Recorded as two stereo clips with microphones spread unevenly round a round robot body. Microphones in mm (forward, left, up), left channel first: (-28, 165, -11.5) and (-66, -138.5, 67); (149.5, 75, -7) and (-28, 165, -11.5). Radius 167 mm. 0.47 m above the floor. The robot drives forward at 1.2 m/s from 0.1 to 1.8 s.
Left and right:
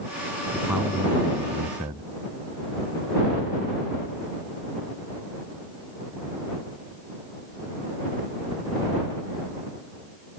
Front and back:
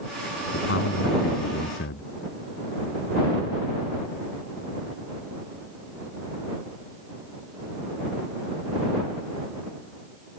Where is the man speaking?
10° right; by 2.1 s 15° right.